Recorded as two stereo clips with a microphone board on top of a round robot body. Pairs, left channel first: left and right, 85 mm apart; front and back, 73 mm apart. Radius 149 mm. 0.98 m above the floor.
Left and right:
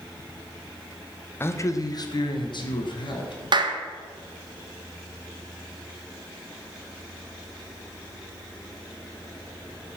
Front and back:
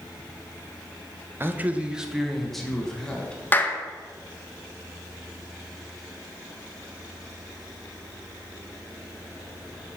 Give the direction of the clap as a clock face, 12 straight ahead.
2 o'clock.